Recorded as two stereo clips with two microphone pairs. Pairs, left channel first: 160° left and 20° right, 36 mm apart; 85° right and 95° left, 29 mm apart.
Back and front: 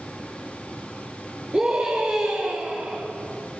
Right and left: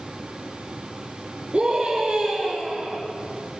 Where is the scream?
40° left, 3.5 m.